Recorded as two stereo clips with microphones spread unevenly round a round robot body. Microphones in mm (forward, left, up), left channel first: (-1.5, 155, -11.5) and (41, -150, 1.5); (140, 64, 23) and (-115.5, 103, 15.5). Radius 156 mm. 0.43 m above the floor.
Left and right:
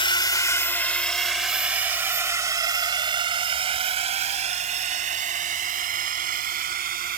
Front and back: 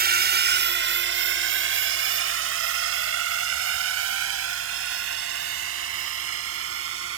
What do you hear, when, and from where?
0.0 s a drone: 165° left; by 7.2 s 145° right